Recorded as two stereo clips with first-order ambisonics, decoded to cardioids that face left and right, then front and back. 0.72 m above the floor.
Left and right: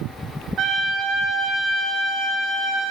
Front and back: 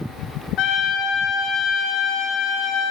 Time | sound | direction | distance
0.6 | a trumpet | 45° right | 1.5 m